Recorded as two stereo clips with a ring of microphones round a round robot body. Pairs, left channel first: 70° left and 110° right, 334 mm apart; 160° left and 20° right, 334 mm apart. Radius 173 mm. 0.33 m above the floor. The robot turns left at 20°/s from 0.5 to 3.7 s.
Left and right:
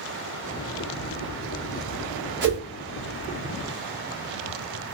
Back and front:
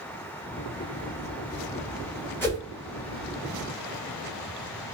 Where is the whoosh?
125° right, 1.7 m; by 2.6 s 130° right, 1.7 m.